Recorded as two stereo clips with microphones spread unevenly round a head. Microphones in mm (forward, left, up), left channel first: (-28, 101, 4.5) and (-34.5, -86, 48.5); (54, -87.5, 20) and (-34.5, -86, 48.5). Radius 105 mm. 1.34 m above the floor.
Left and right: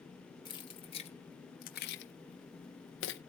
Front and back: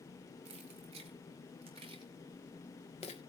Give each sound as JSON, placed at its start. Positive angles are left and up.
{"t": 0.5, "sound": "keys jangling", "azimuth_deg": 155, "distance_m": 1.7}